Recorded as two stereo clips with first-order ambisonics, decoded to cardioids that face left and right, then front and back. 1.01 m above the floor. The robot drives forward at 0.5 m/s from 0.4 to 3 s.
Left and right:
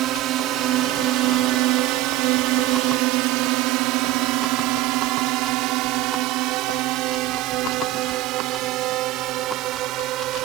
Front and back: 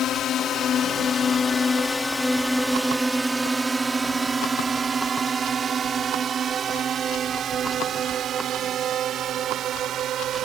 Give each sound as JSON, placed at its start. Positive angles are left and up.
{"t": 0.0, "sound": "a drone", "azimuth_deg": -50}